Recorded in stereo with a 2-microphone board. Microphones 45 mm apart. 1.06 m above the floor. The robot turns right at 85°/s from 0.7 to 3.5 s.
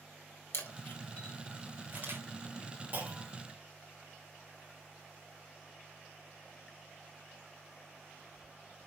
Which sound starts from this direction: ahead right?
A clunk, at 2.9 s.